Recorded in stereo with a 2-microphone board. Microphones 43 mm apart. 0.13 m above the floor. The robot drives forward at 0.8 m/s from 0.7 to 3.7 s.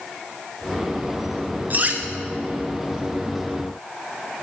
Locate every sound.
1.7 s cutlery clinking: 45° right (ahead or behind), 0.9 m